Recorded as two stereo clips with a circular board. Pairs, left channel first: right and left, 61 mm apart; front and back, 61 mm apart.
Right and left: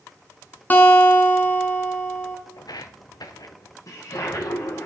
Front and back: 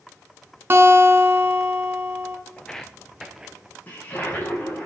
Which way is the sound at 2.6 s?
75° right.